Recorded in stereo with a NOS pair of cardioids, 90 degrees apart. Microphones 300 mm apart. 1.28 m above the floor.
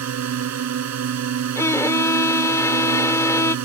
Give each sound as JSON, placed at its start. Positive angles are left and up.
{"t": 0.0, "sound": "a drone", "azimuth_deg": -60}
{"t": 1.6, "sound": "a violin", "azimuth_deg": 10}